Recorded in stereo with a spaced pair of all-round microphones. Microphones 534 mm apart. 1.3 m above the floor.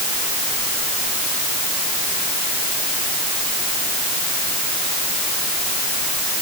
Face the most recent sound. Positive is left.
No sound to turn to.